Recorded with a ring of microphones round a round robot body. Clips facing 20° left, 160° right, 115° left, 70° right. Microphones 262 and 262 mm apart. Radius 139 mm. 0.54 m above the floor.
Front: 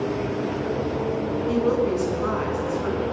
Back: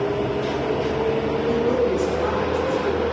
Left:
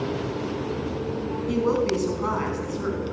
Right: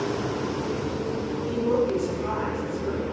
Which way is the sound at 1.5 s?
105° left.